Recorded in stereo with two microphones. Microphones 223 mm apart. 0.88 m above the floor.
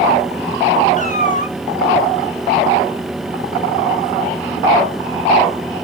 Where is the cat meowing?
35° left (ahead or behind), 0.7 m.